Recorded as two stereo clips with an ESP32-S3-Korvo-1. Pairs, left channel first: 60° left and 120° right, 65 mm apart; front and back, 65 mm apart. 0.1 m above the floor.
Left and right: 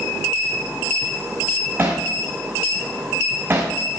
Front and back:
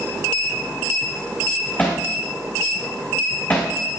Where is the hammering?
65° right, 3.5 m.